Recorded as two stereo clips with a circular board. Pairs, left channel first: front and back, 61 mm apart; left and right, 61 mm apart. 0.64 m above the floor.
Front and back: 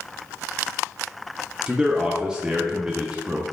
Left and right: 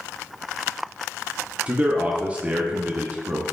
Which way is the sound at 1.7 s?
125° right.